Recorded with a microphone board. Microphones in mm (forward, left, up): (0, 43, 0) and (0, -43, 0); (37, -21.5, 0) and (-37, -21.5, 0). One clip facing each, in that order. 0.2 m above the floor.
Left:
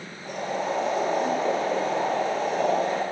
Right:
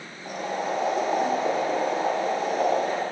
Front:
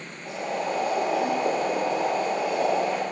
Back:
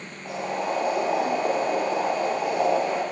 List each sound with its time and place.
0.2 s boiling: 165° right, 0.8 m